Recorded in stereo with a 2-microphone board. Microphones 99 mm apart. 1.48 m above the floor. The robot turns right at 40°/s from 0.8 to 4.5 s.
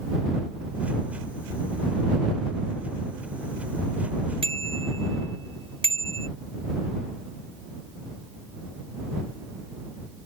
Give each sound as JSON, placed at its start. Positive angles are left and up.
{"t": 4.4, "sound": "a bicycle bell", "side_deg": -75}